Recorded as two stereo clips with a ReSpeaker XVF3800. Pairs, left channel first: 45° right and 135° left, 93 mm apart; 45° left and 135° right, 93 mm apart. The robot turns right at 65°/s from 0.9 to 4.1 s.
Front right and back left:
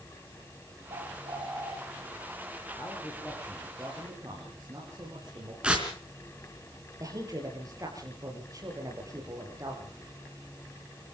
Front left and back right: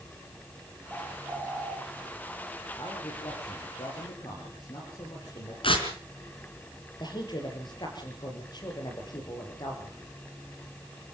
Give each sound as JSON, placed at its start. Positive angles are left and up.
{"t": 0.9, "sound": "a bird", "azimuth_deg": 150, "distance_m": 7.5}
{"t": 2.8, "sound": "a man speaking", "azimuth_deg": -10, "distance_m": 6.0}
{"t": 5.6, "sound": "tearing paper", "azimuth_deg": 55, "distance_m": 3.5}
{"t": 7.0, "sound": "a woman speaking", "azimuth_deg": 85, "distance_m": 5.5}